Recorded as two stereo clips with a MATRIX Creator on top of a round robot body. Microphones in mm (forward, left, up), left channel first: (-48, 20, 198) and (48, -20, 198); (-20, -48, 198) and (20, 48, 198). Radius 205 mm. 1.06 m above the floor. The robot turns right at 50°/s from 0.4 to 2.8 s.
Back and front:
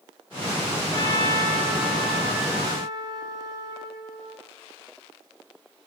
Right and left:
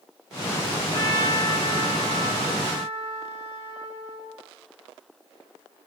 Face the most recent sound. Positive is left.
turn(degrees=-65)